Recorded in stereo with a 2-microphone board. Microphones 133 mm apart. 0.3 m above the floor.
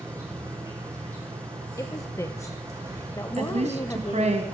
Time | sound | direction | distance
0.0 | an insect | 20° right (ahead or behind) | 4.5 m
1.8 | a woman speaking | 25° left (ahead or behind) | 0.9 m
3.4 | a woman speaking | 60° right (ahead or behind) | 2.5 m